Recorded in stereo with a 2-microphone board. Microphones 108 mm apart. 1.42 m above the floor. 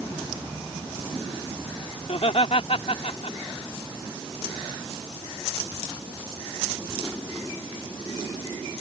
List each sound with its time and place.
2.0 s laughter: 70° left (ahead or behind)